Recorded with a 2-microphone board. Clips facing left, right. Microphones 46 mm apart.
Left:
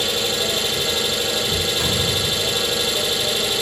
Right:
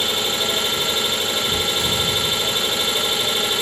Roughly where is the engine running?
Right.